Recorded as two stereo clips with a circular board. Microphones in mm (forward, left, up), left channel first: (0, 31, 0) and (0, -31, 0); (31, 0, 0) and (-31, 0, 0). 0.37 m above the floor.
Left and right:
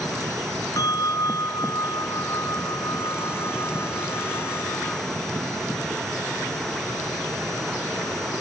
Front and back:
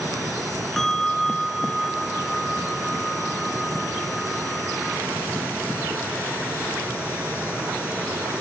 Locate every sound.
0.8 s a bell: 85° left, 1.5 m